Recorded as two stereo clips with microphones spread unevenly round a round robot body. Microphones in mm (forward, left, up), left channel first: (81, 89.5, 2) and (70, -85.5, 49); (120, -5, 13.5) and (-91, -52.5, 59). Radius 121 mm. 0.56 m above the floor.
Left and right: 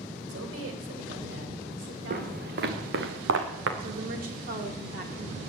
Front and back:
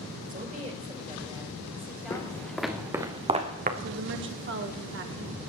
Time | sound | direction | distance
0.3 | a woman speaking | 115° right | 3 m
2.1 | footsteps | 65° right | 2.5 m
3.8 | a woman speaking | 140° right | 1.8 m